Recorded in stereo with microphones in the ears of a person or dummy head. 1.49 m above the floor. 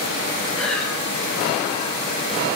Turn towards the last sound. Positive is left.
turn(degrees=10)  # may be behind; listen again after turning